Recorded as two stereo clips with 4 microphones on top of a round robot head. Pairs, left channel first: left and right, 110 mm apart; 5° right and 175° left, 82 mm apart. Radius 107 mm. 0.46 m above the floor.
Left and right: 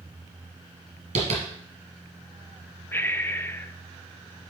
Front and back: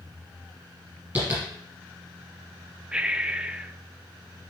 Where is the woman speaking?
I don't hear a woman speaking.